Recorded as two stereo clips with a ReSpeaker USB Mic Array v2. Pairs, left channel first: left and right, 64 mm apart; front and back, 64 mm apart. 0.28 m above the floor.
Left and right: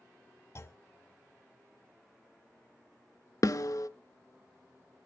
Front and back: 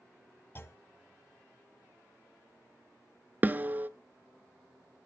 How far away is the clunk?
About 1.1 m.